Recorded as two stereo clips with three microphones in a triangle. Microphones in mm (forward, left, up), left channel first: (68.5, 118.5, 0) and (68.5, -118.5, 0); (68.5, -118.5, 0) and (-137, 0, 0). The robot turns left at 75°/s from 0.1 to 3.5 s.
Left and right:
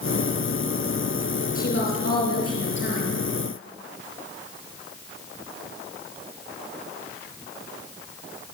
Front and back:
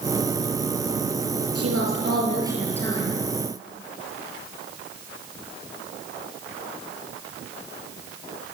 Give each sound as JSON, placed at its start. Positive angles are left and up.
{"t": 1.6, "sound": "a woman speaking", "azimuth_deg": 145, "distance_m": 6.5}